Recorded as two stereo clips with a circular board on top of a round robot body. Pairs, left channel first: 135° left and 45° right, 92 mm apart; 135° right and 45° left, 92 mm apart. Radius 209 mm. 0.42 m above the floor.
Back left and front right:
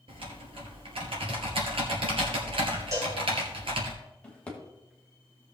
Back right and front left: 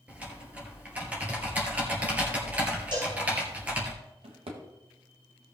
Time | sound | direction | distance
0.1 | typing on a keyboard | 30° right | 2 m
2.9 | a cowbell | 10° left | 3 m
4.2 | a drawer | 55° left | 1.7 m